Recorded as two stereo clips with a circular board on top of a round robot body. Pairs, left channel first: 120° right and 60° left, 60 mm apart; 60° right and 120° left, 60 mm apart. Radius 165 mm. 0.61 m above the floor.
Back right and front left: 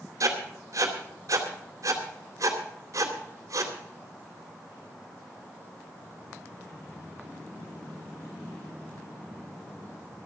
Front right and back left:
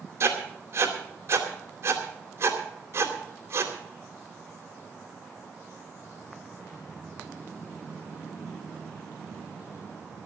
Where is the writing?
85° left, 3.5 m.